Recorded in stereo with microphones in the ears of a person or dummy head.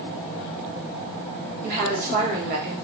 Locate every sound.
1.6 s a woman speaking: 50° right (ahead or behind), 1.5 m